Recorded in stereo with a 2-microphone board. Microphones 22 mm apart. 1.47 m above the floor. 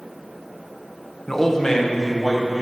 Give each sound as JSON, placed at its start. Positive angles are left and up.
{"t": 1.3, "sound": "a man speaking", "side_deg": 10, "distance_m": 0.8}